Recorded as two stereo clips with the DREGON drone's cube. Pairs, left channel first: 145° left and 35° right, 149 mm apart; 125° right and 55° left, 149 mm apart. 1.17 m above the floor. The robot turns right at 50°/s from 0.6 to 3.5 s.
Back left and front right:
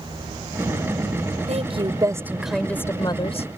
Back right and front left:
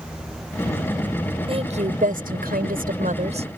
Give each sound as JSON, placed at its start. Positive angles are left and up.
{"t": 1.5, "sound": "a woman speaking", "azimuth_deg": 5}